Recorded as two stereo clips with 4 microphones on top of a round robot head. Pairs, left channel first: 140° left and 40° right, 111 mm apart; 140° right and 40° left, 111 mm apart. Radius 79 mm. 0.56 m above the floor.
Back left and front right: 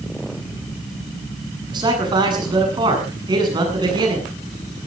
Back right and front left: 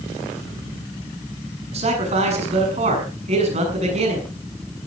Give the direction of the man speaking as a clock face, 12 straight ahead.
12 o'clock.